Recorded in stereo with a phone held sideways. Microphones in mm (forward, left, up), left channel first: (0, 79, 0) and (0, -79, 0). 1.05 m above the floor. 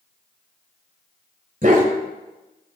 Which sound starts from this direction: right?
A dog barking, at 1.6 s.